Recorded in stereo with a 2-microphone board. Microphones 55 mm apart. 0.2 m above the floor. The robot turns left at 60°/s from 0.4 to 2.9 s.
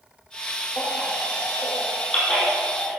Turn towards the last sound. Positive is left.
turn(degrees=-20)  # may be behind; listen again after turning